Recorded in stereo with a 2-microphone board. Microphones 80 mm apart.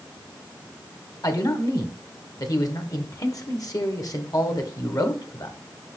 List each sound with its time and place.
1.2 s a man speaking: 50° left (ahead or behind), 1.5 m